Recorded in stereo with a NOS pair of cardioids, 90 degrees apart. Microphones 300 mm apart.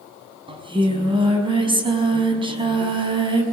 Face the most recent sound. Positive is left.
turn(degrees=-15)